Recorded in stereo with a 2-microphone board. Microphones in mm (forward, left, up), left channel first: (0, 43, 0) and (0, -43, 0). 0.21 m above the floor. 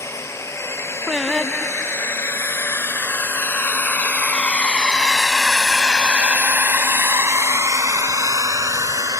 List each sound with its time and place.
0.0 s a drone: 35° left (ahead or behind); by 9.2 s 40° right (ahead or behind)
1.1 s singing: 5° right (ahead or behind)